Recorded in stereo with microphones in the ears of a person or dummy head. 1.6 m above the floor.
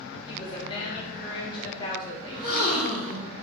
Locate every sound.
0.3 s a woman speaking: 30° left (ahead or behind), 1.9 m
2.3 s a gasp: 25° left (ahead or behind), 2.0 m